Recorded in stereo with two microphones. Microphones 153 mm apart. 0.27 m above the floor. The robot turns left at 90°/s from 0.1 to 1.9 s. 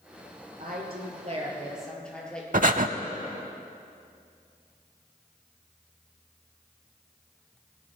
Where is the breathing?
60° right (ahead or behind), 0.6 m.